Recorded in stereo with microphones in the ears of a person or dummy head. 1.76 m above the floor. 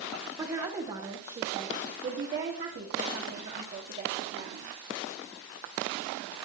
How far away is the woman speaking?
About 2.5 m.